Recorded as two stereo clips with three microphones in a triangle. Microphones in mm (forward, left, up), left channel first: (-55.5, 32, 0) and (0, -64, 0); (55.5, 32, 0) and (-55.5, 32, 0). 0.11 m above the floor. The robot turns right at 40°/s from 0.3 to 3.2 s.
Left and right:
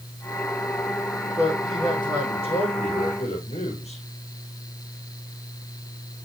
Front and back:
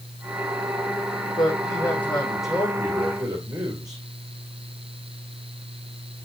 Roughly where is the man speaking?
Ahead left.